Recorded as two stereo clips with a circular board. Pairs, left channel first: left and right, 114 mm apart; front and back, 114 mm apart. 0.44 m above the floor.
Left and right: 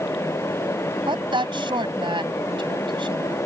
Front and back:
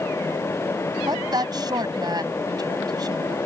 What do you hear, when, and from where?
1.1 s a woman speaking: 130° right